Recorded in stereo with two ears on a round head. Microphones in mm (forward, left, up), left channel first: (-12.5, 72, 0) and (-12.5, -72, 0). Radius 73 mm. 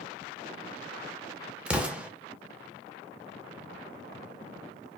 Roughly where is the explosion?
Centre.